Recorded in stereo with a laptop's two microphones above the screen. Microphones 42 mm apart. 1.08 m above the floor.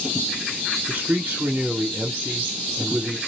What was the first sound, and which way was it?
A man speaking, 50° right (ahead or behind).